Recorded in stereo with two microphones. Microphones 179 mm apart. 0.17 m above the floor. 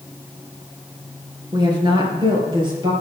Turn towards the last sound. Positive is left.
turn(degrees=-25)  # may be behind; listen again after turning